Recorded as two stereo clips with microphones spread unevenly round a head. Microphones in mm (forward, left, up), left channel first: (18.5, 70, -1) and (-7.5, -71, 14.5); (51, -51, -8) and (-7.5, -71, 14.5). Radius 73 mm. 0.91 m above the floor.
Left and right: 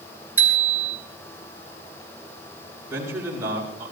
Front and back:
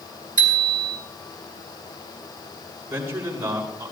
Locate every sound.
0.4 s a bicycle bell: 175° right, 4 m
2.9 s a man speaking: 175° right, 7.5 m